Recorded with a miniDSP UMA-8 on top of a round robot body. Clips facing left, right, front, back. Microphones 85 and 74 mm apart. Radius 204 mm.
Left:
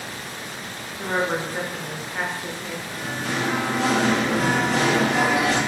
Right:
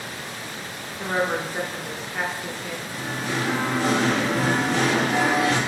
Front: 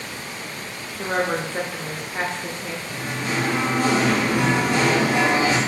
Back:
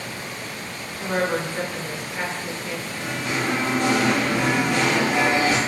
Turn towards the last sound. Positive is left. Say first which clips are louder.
# even, front 2 dB
turn(degrees=55)